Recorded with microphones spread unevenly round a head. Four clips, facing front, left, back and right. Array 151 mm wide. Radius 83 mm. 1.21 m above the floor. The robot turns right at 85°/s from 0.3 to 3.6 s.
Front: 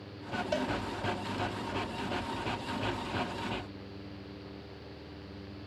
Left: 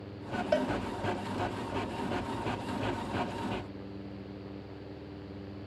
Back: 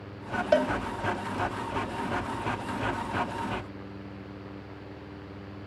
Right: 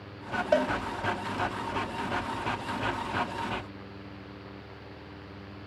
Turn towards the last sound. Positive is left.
turn(degrees=120)